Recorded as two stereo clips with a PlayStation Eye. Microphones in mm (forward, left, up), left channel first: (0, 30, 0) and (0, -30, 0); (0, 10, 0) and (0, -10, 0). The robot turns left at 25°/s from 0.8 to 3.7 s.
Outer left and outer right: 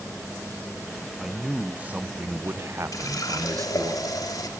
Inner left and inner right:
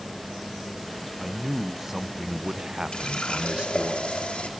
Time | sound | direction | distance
1.2 | a man speaking | 5° right | 0.7 m
2.9 | a running tap | 70° left (ahead or behind) | 2.5 m